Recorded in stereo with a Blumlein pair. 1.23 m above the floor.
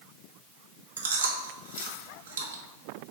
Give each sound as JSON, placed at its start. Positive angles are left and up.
{"t": 1.0, "sound": "chewing", "azimuth_deg": -70, "distance_m": 0.9}